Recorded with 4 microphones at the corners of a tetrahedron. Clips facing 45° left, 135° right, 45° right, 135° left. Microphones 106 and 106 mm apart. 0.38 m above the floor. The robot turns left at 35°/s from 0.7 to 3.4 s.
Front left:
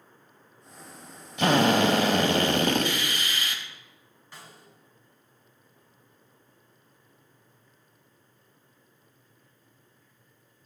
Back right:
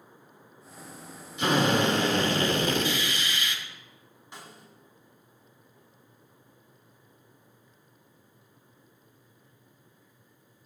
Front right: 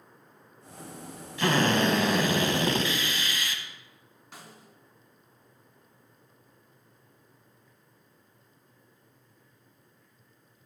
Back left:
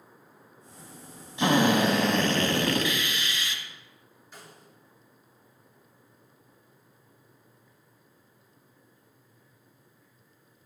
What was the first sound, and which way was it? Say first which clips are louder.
A drill: front left 3 dB, back left 2 dB; 65° left.